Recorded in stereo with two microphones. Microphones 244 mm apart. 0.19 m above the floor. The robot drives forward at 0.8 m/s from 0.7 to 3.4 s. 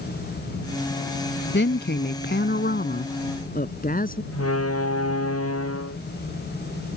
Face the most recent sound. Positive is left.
turn(degrees=75)  # may be behind; listen again after turning